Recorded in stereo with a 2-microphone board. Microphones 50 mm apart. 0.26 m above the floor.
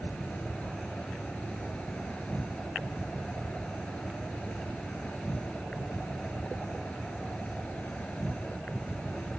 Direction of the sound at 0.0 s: 25° left (ahead or behind).